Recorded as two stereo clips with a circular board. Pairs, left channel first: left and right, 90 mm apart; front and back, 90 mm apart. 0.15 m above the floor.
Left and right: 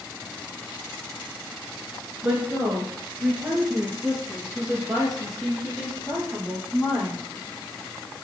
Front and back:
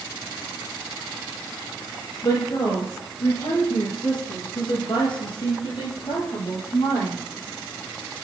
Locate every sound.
2.2 s a woman speaking: 25° right, 2 m; by 7.2 s 5° left, 4.5 m